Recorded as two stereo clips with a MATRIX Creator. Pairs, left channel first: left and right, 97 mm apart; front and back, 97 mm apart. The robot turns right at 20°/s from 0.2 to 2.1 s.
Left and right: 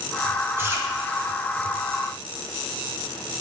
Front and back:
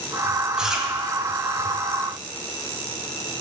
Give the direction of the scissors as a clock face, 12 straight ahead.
I don't hear scissors.